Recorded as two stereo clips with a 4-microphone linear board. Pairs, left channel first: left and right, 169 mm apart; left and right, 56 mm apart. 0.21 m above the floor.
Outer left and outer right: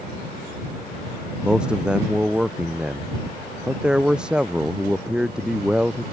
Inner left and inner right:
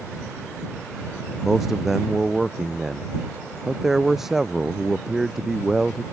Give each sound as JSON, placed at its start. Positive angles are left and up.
{"t": 1.4, "sound": "a man speaking", "side_deg": -5}